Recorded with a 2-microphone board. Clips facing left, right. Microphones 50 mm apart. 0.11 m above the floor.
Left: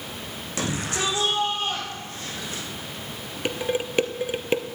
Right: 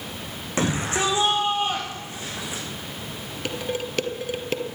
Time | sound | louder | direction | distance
0.6 | a shout | right 4 dB | 25° right (ahead or behind) | 6.5 m
3.5 | dishes clattering | left 3 dB | 15° left (ahead or behind) | 1.5 m